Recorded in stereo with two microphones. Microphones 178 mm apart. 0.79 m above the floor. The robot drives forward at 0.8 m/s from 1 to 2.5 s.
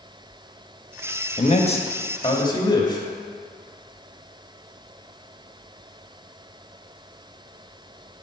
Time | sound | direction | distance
1.4 | a man speaking | 40° left (ahead or behind) | 0.9 m